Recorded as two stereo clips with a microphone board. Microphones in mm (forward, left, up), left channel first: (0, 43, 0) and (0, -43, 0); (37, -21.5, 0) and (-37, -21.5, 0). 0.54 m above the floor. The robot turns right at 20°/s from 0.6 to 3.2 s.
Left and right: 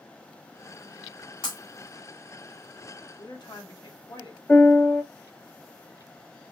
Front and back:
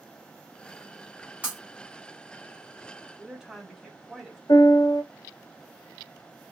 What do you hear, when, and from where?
1.4 s breaking glass: 110° left, 3.5 m
3.2 s a woman speaking: 100° left, 1.4 m
4.5 s a piano: 25° left, 0.8 m